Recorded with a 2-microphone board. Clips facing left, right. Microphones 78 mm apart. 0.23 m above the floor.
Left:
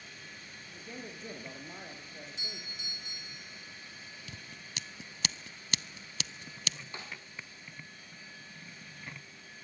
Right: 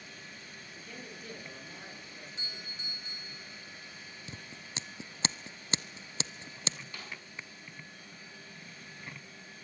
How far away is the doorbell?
About 3 m.